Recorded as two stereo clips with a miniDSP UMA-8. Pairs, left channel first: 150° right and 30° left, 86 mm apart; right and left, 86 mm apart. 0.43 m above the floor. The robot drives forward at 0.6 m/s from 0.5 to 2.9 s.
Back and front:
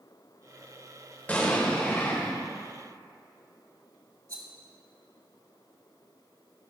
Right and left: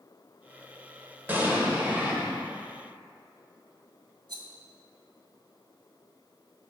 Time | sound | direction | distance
1.3 | an explosion | 145° left | 1.8 m
4.3 | a rattle | 75° left | 1.7 m